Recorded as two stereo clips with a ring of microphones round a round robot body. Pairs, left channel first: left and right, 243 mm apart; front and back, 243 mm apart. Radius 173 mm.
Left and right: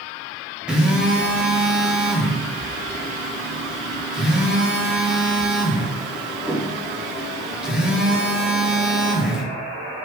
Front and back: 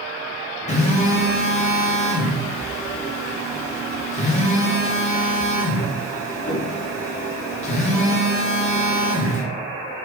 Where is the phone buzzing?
5° right, 0.9 m.